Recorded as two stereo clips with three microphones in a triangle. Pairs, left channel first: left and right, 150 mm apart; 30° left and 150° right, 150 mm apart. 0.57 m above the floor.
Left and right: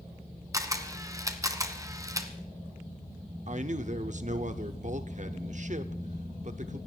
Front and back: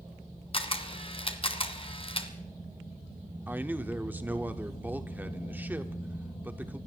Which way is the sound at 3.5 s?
75° right.